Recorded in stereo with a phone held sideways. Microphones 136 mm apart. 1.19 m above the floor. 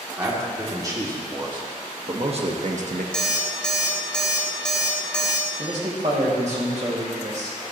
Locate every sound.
0.2 s a man speaking: 20° right (ahead or behind), 3 m; by 3.0 s 70° right (ahead or behind), 1.3 m
3.1 s an alarm clock: 5° left (ahead or behind), 1.6 m
5.6 s a man speaking: 55° right (ahead or behind), 2.5 m